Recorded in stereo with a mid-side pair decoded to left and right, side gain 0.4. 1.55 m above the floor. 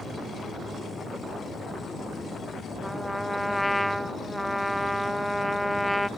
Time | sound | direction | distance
2.8 | a trumpet | straight ahead | 0.5 m